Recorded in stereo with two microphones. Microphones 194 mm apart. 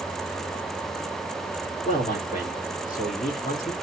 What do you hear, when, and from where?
1.9 s a man speaking: 45° left (ahead or behind), 1.5 m